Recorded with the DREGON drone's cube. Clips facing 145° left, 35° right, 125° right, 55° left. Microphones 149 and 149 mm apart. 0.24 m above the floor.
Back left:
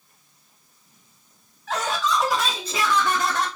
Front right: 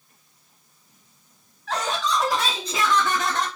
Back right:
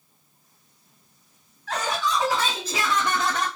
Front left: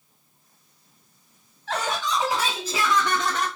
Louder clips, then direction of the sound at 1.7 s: Back left 1 dB, back right 1 dB; 60° left.